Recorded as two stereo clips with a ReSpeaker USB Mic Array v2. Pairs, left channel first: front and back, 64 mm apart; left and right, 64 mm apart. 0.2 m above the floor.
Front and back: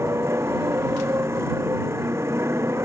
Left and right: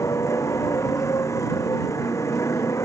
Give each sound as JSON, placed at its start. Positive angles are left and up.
{"t": 0.0, "sound": "a motorcycle", "azimuth_deg": 130}